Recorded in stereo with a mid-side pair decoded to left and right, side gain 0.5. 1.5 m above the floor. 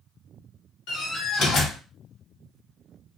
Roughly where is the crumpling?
I don't hear crumpling.